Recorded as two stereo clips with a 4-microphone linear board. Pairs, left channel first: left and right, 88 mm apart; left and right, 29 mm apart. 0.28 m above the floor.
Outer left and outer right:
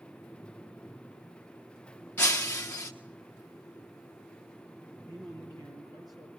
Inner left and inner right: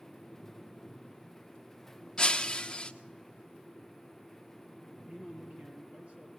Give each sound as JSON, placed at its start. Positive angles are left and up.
{"t": 2.2, "sound": "breaking glass", "side_deg": 20, "distance_m": 1.4}
{"t": 5.1, "sound": "a man speaking", "side_deg": -50, "distance_m": 7.0}